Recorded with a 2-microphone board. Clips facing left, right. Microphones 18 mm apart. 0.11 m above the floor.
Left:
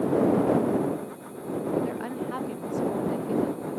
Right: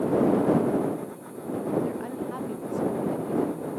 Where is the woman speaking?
20° left (ahead or behind); by 3.8 s 25° left (ahead or behind).